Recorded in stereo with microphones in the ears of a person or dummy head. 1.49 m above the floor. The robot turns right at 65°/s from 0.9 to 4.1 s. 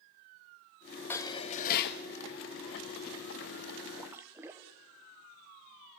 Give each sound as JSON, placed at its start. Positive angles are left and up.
{"t": 1.1, "sound": "dishes clattering", "azimuth_deg": 10, "distance_m": 1.6}
{"t": 4.0, "sound": "a splash", "side_deg": -5, "distance_m": 0.8}